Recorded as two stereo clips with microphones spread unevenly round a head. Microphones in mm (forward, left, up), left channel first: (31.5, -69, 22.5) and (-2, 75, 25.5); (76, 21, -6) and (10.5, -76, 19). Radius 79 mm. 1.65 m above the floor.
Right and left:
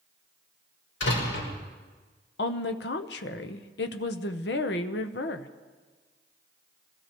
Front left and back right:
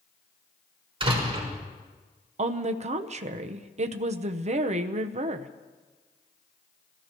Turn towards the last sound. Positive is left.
turn(degrees=-100)